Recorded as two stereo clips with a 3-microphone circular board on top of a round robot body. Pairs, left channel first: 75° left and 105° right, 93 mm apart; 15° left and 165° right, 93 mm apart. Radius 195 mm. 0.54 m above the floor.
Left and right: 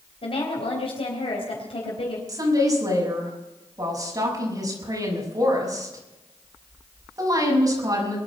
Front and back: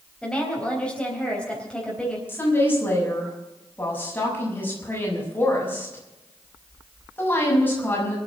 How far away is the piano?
I don't hear a piano.